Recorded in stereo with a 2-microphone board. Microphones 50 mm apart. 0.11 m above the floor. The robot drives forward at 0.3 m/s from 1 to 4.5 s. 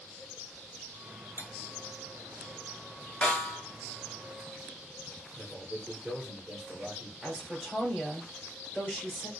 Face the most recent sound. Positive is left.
turn(degrees=0)  # may be behind; listen again after turning